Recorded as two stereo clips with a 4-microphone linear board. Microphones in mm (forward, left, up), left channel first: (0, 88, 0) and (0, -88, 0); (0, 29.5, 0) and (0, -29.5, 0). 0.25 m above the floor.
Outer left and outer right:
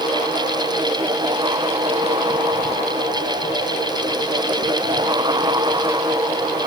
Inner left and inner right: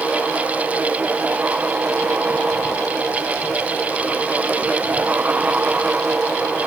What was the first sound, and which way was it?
Only background noise.